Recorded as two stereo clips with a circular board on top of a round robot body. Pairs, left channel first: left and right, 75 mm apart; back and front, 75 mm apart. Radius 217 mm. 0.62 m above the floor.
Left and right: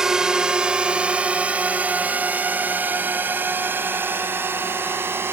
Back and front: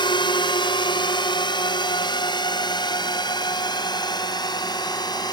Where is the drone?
175° right; by 5.3 s 150° right.